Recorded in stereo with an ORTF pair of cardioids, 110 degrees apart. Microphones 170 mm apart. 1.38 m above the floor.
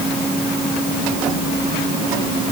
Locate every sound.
Only background noise.